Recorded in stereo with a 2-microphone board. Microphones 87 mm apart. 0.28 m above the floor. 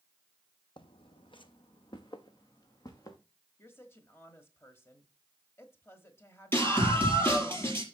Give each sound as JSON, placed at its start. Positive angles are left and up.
{"t": 0.8, "sound": "footsteps", "side_deg": 70, "distance_m": 0.8}
{"t": 3.6, "sound": "a woman speaking", "side_deg": 30, "distance_m": 1.3}
{"t": 6.5, "sound": "a scream", "side_deg": 25, "distance_m": 5.5}